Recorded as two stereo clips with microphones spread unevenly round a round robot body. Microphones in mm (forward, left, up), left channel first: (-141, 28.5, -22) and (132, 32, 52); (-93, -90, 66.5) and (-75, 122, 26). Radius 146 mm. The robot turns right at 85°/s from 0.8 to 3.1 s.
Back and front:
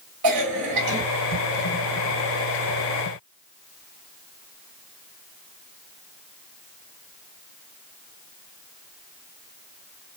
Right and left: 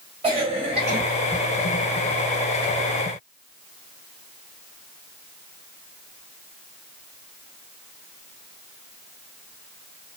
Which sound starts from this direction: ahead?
A cough, at 0.2 s.